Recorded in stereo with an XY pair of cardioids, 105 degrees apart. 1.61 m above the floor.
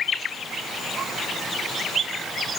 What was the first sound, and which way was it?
Only background noise.